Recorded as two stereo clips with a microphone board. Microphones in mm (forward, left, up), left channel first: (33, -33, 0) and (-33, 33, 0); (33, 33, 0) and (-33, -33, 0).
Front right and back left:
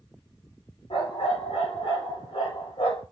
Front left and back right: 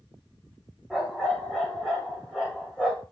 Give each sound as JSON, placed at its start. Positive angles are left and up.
{"t": 0.9, "sound": "a dog barking", "azimuth_deg": -45, "distance_m": 7.0}